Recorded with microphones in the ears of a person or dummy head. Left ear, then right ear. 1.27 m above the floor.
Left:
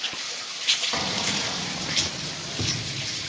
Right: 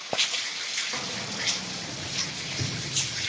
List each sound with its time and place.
0.9 s keys jangling: 35° left (ahead or behind), 1.1 m; by 2.8 s 50° left (ahead or behind), 2.5 m